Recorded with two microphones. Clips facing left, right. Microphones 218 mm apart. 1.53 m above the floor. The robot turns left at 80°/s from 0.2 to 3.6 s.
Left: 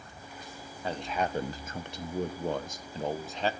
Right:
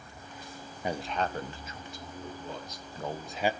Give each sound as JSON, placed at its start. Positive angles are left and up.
{"t": 0.8, "sound": "a man speaking", "azimuth_deg": -160, "distance_m": 1.2}